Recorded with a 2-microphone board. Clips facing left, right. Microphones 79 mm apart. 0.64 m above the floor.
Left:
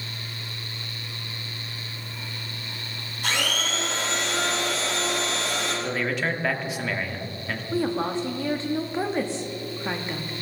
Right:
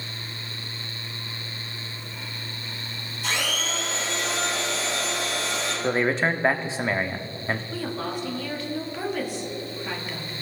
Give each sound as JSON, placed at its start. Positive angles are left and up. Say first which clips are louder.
{"t": 3.2, "sound": "a blender", "louder": "left 1 dB", "side_deg": 60, "distance_m": 4.5}
{"t": 5.8, "sound": "a man speaking", "louder": "right 7 dB", "side_deg": -30, "distance_m": 0.8}
{"t": 7.7, "sound": "a woman speaking", "louder": "left 5 dB", "side_deg": 30, "distance_m": 1.1}